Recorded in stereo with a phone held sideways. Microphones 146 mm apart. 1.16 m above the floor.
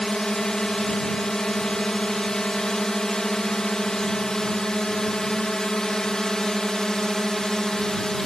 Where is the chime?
No chime in this recording.